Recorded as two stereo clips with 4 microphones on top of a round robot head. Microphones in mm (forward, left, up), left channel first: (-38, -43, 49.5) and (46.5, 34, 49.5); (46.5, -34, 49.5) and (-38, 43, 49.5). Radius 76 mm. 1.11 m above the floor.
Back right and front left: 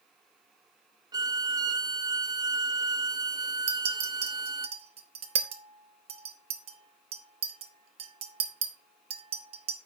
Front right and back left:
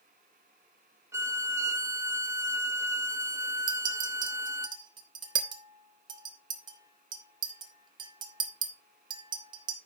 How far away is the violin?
About 0.8 m.